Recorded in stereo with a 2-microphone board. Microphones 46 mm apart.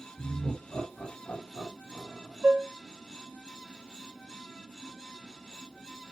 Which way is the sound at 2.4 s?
35° right (ahead or behind).